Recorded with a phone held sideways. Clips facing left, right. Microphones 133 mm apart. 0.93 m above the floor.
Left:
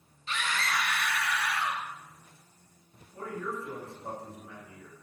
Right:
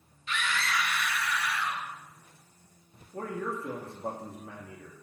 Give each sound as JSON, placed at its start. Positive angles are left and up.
{"t": 0.3, "sound": "a scream", "side_deg": 30, "distance_m": 1.4}
{"t": 3.1, "sound": "a man speaking", "side_deg": -70, "distance_m": 1.8}